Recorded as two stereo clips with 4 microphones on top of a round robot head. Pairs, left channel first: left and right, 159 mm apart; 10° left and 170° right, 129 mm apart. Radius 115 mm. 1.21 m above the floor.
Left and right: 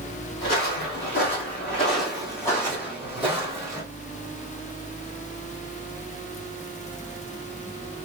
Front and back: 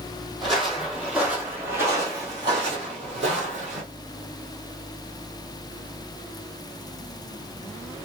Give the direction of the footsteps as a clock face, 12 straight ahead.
9 o'clock.